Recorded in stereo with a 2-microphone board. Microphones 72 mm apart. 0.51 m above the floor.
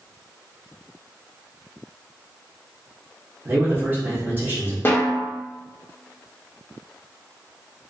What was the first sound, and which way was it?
A man speaking, 25° right (ahead or behind).